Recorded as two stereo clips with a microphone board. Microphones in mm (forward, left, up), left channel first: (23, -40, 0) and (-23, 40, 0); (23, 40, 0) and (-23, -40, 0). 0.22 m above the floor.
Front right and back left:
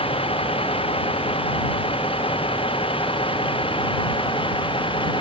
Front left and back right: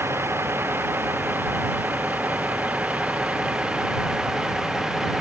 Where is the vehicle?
55° right; by 5.2 s 35° right.